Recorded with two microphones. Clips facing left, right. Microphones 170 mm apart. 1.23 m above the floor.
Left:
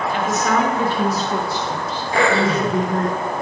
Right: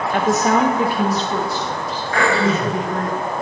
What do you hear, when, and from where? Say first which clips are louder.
0.1 s a woman speaking: right 4 dB; 50° right (ahead or behind), 1.2 m; by 3.1 s 45° left (ahead or behind), 3 m
2.1 s throat clearing: left 1 dB; 25° left (ahead or behind), 4.5 m